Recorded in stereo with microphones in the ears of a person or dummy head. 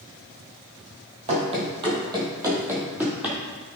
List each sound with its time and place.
1.3 s running footsteps: 35° right (ahead or behind), 2 m; by 3.4 s 5° right (ahead or behind), 2.5 m